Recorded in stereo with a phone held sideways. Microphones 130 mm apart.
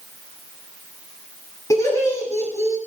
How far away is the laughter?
About 7.5 m.